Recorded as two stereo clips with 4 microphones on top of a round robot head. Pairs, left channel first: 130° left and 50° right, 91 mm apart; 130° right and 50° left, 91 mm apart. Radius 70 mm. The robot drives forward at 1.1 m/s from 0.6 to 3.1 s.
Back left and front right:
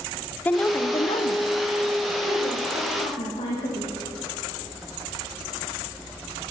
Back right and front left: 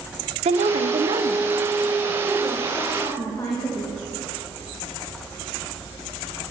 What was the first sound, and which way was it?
A woman speaking, 60° left.